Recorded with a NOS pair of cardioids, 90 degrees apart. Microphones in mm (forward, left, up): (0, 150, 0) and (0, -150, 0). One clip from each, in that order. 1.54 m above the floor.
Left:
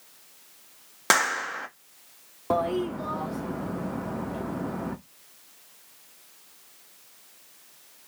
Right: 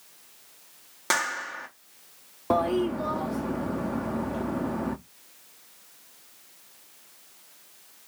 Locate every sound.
1.1 s a clap: 35° left, 1.2 m
2.5 s a toilet flushing: 10° right, 0.5 m